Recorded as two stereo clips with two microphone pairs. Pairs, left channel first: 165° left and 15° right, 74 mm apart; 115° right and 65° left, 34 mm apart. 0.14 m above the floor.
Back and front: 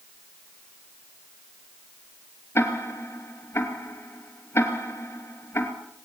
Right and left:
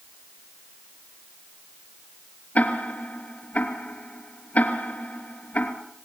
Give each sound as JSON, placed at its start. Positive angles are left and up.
{"t": 2.5, "sound": "ticking", "azimuth_deg": -145, "distance_m": 3.0}